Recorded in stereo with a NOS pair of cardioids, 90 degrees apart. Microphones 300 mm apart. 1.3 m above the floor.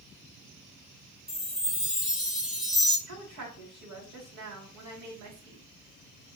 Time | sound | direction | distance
1.3 | a chime | straight ahead | 1.4 m
3.1 | a woman speaking | 60° right | 3 m